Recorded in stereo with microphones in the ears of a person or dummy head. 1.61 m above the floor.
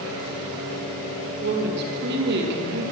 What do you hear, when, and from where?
1.4 s a woman speaking: 60° right (ahead or behind), 2.5 m